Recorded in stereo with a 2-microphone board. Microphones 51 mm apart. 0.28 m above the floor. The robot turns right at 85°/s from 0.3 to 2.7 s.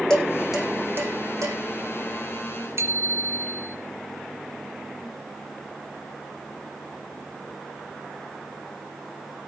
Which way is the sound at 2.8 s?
60° right (ahead or behind).